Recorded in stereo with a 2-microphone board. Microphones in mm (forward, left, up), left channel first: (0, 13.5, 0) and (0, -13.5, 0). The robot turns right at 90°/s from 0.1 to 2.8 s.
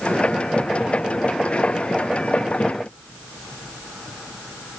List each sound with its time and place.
Only background noise.